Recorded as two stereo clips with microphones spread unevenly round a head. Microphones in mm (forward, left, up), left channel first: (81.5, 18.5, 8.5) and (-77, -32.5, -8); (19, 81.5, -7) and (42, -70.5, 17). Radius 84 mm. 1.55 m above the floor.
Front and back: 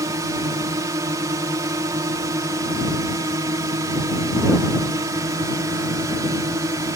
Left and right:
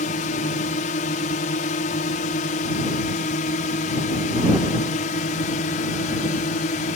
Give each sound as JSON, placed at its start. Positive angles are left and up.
{"t": 0.0, "sound": "a drone", "azimuth_deg": 130}